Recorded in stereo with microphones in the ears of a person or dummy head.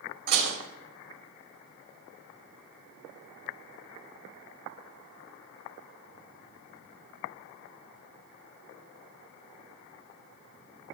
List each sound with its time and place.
0.3 s dishes clattering: 50° right (ahead or behind), 4.5 m